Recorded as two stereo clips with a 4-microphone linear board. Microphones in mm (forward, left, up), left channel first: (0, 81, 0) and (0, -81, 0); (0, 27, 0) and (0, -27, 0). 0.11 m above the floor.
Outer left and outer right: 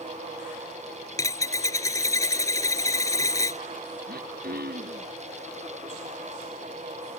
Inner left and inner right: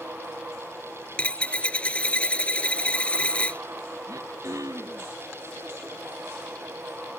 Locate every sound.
1.2 s a dropped coin: 20° left (ahead or behind)
4.1 s throat clearing: 70° right (ahead or behind)